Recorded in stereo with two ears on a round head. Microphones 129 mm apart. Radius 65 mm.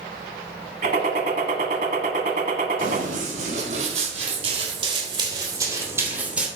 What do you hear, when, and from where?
0.8 s a gunshot: 55° right (ahead or behind), 1.5 m
2.8 s running footsteps: 60° right (ahead or behind), 4.5 m; by 6.5 s 5° right (ahead or behind), 3 m